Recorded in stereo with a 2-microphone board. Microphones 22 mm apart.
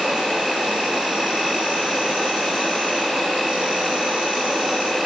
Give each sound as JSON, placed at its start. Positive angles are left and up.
{"t": 0.0, "sound": "an insect", "side_deg": -55, "distance_m": 0.9}